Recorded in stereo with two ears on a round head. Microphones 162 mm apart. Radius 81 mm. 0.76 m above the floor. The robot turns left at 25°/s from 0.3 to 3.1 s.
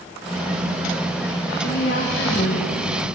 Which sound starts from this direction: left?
A woman speaking, at 1.6 s.